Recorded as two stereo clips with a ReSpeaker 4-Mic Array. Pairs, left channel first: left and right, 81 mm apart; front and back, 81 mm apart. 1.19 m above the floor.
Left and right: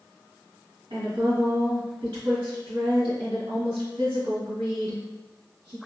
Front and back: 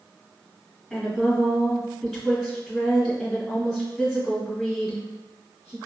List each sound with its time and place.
0.9 s a woman speaking: 95° right, 1.9 m